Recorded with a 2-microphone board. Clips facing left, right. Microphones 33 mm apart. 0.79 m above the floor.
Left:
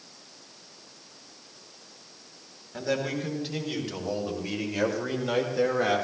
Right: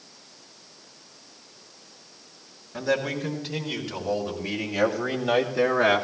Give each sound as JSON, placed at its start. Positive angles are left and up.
{"t": 2.7, "sound": "a man speaking", "side_deg": 0, "distance_m": 4.0}